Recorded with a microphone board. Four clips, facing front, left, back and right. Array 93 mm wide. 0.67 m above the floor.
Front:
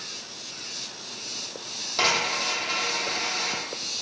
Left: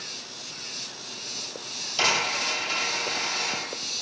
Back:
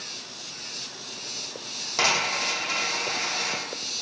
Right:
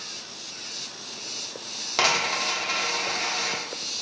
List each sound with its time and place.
2.0 s a dropped coin: 100° right, 0.6 m